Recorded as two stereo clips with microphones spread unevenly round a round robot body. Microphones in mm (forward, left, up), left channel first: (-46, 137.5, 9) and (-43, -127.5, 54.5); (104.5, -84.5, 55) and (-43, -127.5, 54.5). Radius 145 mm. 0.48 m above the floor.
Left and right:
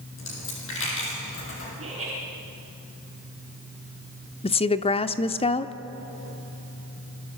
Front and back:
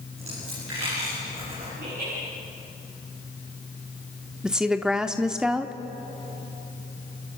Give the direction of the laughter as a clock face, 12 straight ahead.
5 o'clock.